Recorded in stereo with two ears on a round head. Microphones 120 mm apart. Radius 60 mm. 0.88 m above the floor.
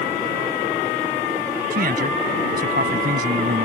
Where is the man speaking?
70° right (ahead or behind).